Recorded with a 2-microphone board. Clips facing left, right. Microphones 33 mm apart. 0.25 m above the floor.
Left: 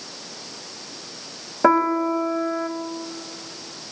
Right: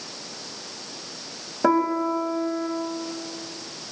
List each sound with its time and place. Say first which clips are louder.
1.6 s a piano: left 3 dB; 30° left (ahead or behind), 1.3 m